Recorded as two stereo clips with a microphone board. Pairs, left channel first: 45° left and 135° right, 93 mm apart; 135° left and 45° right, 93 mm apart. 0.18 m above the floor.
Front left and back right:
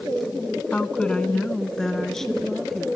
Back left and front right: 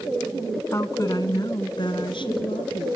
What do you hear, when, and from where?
0.7 s a woman speaking: 110° left, 1.3 m; by 2.9 s 135° left, 3 m